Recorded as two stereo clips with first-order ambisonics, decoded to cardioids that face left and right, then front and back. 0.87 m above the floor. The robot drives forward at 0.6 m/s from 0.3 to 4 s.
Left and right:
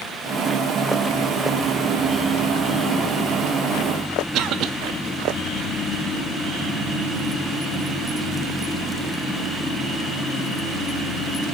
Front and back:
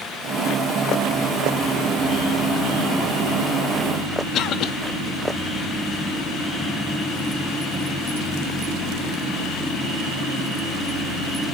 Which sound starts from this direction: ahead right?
A cough, at 4.3 s.